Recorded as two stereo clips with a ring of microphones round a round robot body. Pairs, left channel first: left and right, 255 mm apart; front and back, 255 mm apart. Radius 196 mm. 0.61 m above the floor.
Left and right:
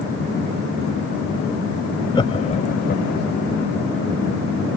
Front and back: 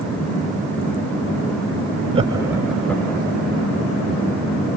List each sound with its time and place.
2.1 s laughter: 145° left, 1.0 m; by 3.3 s 75° left, 1.3 m